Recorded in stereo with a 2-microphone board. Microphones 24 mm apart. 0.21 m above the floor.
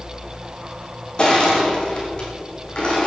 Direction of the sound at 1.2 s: 35° left (ahead or behind).